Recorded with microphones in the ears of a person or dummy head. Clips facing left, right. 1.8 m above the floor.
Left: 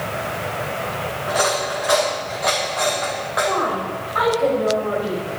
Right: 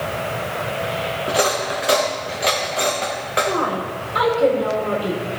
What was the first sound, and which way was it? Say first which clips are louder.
Cutlery clinking: even; 35° right (ahead or behind).